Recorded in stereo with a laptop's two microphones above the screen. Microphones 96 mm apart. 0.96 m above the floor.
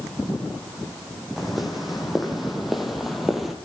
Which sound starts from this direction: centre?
Footsteps, at 1.4 s.